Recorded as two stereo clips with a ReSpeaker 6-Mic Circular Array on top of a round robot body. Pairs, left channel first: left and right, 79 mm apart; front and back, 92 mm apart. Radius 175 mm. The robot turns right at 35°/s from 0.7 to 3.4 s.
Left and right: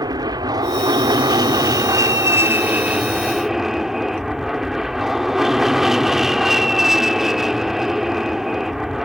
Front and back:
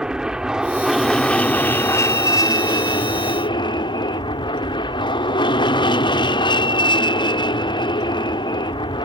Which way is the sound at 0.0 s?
100° right.